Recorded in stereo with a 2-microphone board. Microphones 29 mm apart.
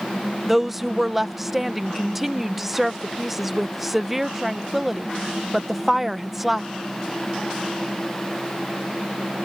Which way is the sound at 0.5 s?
5° right (ahead or behind).